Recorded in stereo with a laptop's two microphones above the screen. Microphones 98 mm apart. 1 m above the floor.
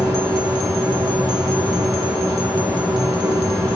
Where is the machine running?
45° right (ahead or behind), 2 m.